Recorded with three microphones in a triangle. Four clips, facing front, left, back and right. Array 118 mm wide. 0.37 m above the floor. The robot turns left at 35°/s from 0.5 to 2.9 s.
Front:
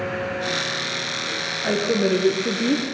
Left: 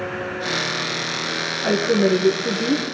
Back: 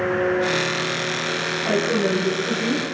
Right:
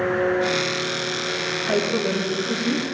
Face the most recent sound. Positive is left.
turn(degrees=25)